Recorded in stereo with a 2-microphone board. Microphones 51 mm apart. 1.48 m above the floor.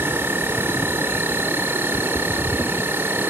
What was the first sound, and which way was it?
An insect, 40° right (ahead or behind).